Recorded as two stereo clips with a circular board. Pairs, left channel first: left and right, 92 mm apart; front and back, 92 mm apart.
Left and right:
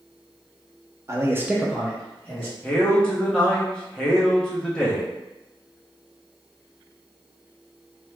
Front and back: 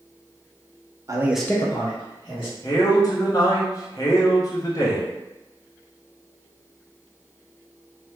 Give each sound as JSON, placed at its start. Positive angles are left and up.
{"t": 1.1, "sound": "a man speaking", "azimuth_deg": -140, "distance_m": 0.7}
{"t": 2.6, "sound": "a man speaking", "azimuth_deg": 15, "distance_m": 0.9}